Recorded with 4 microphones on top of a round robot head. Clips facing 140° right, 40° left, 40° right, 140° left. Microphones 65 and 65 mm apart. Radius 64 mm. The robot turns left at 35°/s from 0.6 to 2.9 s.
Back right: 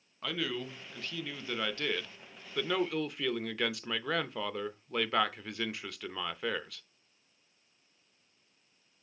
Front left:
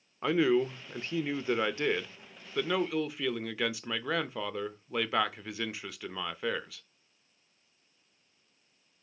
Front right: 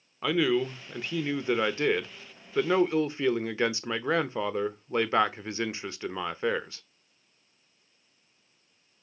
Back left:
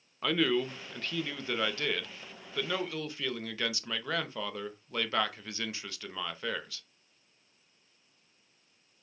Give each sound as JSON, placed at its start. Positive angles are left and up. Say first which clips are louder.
{"t": 0.2, "sound": "a man speaking", "louder": "front left 10 dB, front right 3 dB", "azimuth_deg": 35, "distance_m": 0.6}